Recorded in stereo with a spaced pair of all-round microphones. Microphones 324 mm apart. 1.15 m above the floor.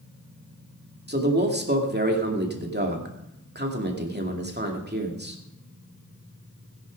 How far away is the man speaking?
About 2.5 m.